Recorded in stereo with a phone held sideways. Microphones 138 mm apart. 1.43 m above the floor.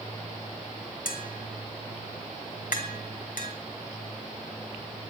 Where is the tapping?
80° left, 3 m.